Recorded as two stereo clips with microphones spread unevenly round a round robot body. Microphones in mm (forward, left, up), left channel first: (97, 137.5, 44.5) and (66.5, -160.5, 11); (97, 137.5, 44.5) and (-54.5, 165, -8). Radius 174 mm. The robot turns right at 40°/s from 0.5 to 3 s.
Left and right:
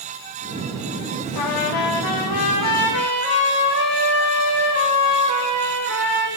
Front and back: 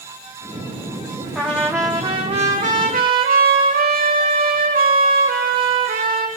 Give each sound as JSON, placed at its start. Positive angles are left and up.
{"t": 1.4, "sound": "a trumpet", "azimuth_deg": 80, "distance_m": 5.0}